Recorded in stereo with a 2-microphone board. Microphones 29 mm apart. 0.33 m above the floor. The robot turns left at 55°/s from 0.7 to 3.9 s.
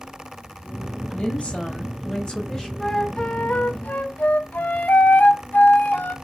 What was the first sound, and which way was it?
A woman speaking, 105° left.